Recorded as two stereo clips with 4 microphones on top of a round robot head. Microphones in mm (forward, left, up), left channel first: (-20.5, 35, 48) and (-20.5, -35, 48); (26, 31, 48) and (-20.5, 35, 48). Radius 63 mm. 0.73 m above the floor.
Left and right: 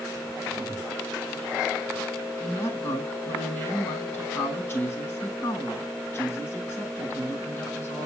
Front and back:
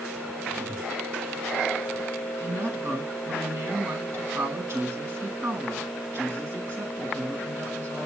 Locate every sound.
0.5 s a whoosh: 145° left, 8 m
2.4 s a woman speaking: 145° left, 9 m